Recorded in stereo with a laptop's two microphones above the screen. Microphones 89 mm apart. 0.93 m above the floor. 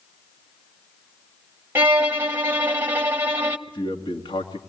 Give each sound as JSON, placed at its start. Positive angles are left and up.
{"t": 1.8, "sound": "a violin", "side_deg": -25, "distance_m": 0.9}
{"t": 3.7, "sound": "a man speaking", "side_deg": 65, "distance_m": 1.8}